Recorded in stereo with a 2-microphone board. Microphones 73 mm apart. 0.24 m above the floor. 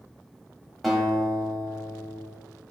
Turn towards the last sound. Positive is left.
turn(degrees=0)  # may be behind; listen again after turning